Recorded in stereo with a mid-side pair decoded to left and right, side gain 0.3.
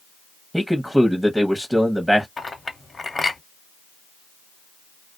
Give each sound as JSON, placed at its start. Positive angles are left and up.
{"t": 0.5, "sound": "a man speaking", "azimuth_deg": -5, "distance_m": 0.8}
{"t": 2.4, "sound": "a clink", "azimuth_deg": 40, "distance_m": 1.1}